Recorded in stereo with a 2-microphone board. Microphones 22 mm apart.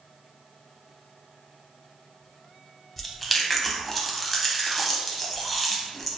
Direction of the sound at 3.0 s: Centre (ahead or behind).